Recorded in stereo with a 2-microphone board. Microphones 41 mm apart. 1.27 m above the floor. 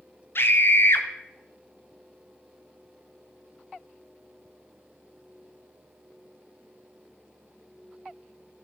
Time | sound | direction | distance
0.3 | a scream | 65° left (ahead or behind) | 1.2 m